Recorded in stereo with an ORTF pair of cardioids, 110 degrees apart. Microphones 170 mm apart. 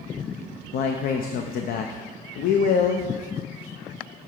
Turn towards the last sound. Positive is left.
turn(degrees=60)